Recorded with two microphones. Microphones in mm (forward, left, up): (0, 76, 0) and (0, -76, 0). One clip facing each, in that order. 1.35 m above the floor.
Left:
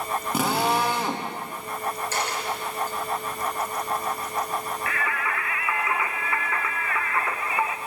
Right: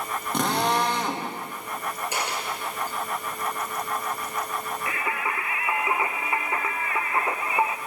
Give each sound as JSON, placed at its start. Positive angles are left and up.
{"t": 0.3, "sound": "a drill", "side_deg": 5, "distance_m": 1.6}
{"t": 2.1, "sound": "a dropped coin", "side_deg": -15, "distance_m": 3.5}
{"t": 4.9, "sound": "singing", "side_deg": -25, "distance_m": 0.7}